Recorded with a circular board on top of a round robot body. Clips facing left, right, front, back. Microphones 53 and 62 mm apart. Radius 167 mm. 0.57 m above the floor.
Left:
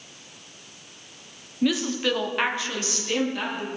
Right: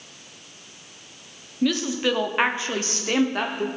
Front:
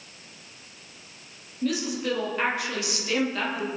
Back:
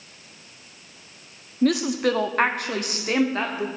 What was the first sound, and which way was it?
A woman speaking, 170° left.